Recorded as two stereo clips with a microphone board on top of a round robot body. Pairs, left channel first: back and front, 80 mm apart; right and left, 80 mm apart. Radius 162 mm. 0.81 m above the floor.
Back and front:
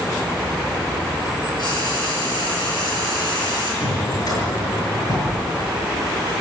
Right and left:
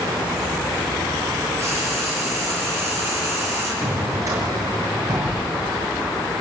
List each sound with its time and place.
1.6 s frying: 150° left, 7.5 m
3.8 s a drawer: 140° left, 6 m